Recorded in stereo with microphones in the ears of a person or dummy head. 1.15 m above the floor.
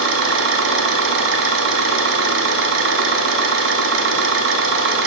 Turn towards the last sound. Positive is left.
turn(degrees=-60)  # may be behind; listen again after turning